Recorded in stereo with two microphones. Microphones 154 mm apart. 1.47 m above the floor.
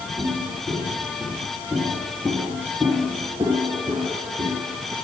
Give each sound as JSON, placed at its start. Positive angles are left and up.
{"t": 0.2, "sound": "footsteps", "side_deg": -10, "distance_m": 3.0}